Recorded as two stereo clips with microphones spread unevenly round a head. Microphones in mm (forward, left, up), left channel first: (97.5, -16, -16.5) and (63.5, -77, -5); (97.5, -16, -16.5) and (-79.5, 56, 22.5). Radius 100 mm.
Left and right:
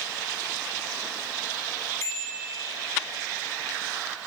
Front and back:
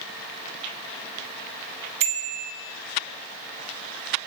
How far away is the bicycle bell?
About 2.5 m.